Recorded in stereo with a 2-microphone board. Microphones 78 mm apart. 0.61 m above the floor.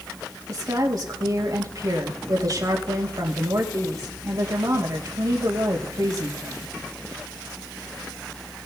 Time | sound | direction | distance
0.5 | a woman speaking | 55° right (ahead or behind) | 3 m